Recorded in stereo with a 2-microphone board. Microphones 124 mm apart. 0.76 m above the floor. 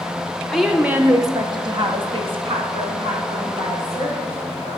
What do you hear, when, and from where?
0.5 s a woman speaking: centre (ahead or behind), 0.6 m; by 4.8 s 45° right (ahead or behind), 2.5 m